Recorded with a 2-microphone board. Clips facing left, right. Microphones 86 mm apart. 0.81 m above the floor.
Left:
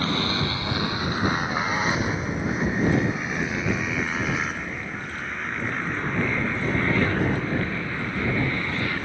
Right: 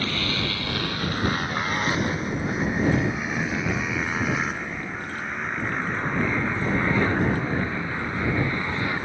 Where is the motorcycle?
30° left (ahead or behind); by 9.1 s 20° right (ahead or behind).